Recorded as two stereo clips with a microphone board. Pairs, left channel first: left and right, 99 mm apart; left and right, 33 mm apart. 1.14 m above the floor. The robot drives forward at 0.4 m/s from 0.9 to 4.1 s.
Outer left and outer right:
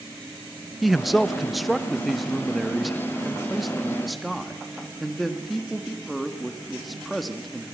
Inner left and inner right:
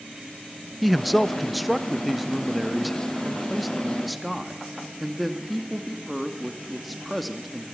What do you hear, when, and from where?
0.8 s a man speaking: centre (ahead or behind), 0.6 m